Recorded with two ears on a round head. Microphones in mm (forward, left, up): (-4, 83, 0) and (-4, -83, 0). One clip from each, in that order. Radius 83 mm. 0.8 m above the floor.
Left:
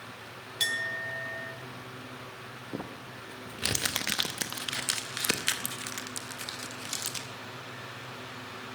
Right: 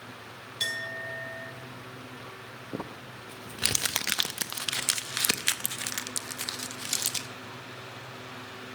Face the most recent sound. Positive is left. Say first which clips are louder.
# right 2 dB
turn(degrees=-20)  # may be behind; listen again after turning